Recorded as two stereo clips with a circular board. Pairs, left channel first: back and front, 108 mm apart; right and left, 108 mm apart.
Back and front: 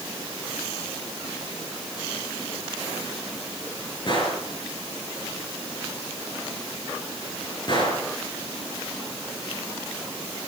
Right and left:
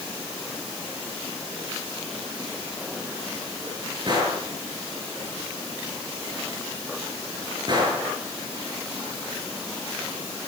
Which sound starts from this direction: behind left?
A gunshot, at 4.1 s.